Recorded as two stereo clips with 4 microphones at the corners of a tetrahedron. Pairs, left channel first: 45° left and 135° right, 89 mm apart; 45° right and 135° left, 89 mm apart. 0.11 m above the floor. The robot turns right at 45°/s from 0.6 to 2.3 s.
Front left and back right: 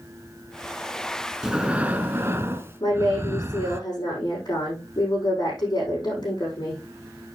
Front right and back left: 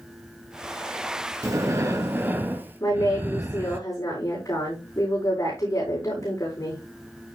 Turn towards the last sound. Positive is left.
turn(degrees=5)